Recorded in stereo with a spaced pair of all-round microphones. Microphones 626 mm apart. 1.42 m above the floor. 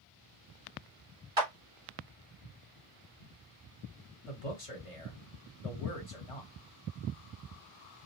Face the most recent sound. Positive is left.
turn(degrees=60)  # may be behind; listen again after turning